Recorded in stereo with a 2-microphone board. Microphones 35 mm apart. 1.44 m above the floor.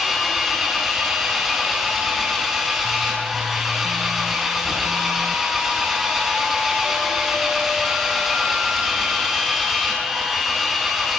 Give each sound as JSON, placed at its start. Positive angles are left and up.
{"t": 0.0, "sound": "an engine running", "side_deg": -10, "distance_m": 8.0}